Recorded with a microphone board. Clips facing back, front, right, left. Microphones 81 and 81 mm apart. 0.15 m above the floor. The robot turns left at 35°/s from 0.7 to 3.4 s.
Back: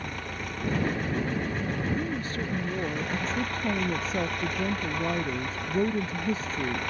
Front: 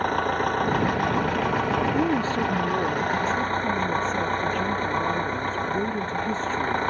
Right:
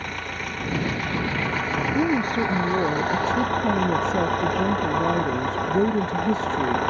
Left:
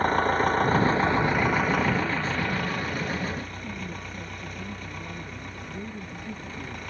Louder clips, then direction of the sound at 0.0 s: Front 13 dB, left 9 dB; 40° left.